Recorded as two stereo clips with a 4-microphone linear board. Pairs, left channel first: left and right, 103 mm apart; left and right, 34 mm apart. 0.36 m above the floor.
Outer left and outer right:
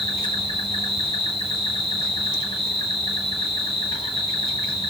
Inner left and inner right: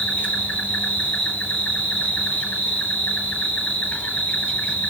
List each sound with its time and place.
0.0 s an insect: 65° left (ahead or behind), 1.3 m